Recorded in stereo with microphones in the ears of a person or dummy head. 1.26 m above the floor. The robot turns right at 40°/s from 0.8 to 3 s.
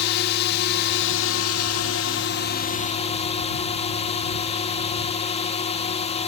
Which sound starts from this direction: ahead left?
A drone, at 0.0 s.